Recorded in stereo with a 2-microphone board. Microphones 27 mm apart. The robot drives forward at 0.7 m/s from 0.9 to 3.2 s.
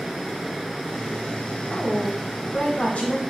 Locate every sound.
1.7 s a woman speaking: 55° left (ahead or behind), 1.6 m; by 3.2 s 40° left (ahead or behind), 2.0 m